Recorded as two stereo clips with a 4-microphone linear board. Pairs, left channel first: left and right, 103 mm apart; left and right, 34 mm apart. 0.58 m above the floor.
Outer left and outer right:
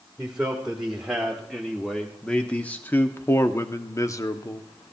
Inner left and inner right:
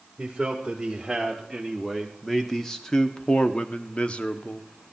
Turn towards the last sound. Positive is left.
turn(degrees=35)  # may be behind; listen again after turning